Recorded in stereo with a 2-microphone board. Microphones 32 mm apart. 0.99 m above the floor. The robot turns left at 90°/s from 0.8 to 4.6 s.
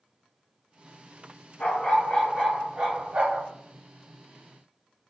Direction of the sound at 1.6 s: 65° left.